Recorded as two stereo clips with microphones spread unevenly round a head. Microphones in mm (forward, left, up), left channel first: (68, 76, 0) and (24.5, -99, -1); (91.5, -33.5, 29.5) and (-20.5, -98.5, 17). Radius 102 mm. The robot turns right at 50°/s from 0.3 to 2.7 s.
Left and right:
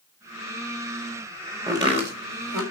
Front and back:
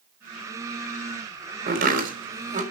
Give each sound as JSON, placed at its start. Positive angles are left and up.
{"t": 1.7, "sound": "chopping", "azimuth_deg": 180, "distance_m": 4.0}